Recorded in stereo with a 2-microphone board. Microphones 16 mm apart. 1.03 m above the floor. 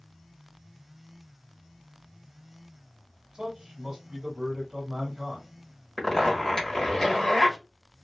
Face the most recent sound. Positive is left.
turn(degrees=30)  # may be behind; listen again after turning